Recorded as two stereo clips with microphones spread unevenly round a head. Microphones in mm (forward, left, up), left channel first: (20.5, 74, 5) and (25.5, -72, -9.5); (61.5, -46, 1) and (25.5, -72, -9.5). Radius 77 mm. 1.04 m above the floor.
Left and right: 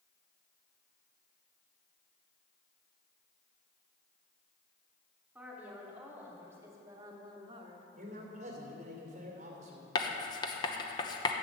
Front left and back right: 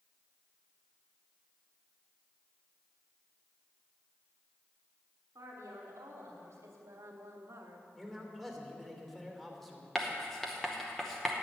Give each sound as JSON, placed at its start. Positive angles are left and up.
{"t": 5.3, "sound": "a woman speaking", "azimuth_deg": -170, "distance_m": 2.5}
{"t": 7.9, "sound": "a man speaking", "azimuth_deg": -50, "distance_m": 3.0}
{"t": 9.9, "sound": "writing", "azimuth_deg": 140, "distance_m": 0.9}